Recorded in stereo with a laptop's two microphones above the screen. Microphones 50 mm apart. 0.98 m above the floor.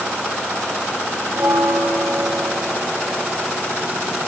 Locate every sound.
1.3 s a bell: 70° right (ahead or behind), 0.6 m